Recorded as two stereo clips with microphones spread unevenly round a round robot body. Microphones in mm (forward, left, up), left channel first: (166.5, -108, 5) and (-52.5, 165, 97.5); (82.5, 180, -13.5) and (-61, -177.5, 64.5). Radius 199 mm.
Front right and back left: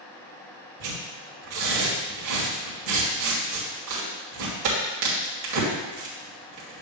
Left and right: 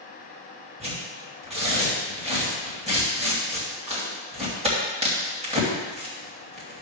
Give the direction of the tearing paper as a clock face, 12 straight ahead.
6 o'clock.